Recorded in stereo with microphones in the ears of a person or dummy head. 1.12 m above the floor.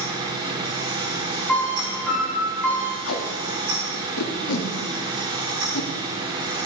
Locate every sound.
0.0 s a fan: 30° right (ahead or behind), 1.5 m
1.5 s a piano: 5° left (ahead or behind), 3.5 m
3.0 s tape being pulled: 70° left (ahead or behind), 1.0 m